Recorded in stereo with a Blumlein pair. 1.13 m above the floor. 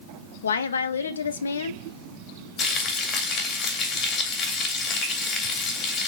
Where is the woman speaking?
70° left, 0.8 m.